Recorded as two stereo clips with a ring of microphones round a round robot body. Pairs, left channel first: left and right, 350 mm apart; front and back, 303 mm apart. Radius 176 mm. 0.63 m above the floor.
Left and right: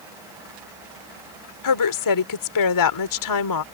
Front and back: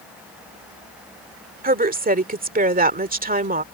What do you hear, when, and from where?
1.6 s a woman speaking: 120° left